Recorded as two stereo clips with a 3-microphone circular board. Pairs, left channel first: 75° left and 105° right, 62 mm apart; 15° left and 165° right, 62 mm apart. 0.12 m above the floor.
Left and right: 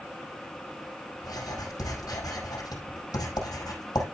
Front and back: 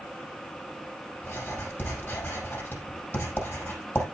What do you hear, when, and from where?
1.2 s writing: 70° left, 5 m